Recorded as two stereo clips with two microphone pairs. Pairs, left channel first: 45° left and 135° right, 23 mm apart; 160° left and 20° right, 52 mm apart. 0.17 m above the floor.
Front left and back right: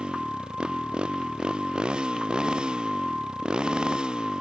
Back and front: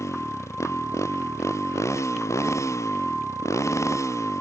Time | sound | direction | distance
0.0 | a motorcycle | straight behind | ?